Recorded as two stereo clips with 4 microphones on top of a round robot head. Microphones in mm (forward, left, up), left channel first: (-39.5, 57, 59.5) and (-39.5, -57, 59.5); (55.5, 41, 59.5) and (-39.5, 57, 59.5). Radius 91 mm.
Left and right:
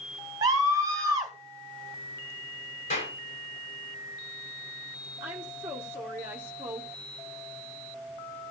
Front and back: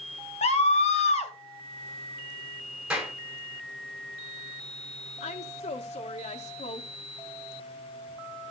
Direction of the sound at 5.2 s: 15° right.